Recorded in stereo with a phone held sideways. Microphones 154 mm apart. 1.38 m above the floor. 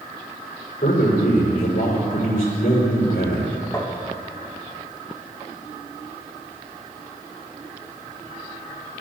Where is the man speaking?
80° left, 5.5 m.